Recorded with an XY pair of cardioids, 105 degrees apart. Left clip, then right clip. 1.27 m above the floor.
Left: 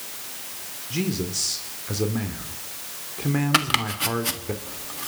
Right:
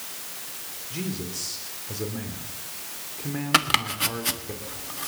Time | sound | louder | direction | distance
0.9 | a man speaking | left 7 dB | 40° left | 3.5 m
3.5 | chopping | right 2 dB | 10° right | 1.4 m